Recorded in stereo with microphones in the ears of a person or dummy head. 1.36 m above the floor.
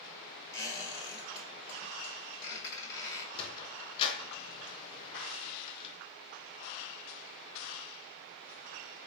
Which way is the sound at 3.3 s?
25° left (ahead or behind).